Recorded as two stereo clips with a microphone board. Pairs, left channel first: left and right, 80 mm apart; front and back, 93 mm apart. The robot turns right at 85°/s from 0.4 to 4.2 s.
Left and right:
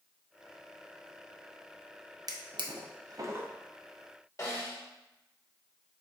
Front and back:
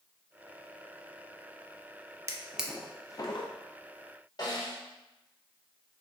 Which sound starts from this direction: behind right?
A drawer, at 2.3 s.